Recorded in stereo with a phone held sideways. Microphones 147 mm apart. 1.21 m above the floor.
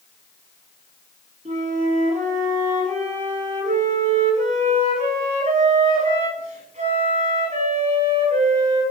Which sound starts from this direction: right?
A flute, at 1.4 s.